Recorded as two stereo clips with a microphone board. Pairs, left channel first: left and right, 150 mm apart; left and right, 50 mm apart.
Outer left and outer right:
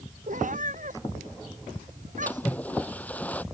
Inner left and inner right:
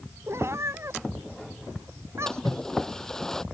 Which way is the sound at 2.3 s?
10° left (ahead or behind).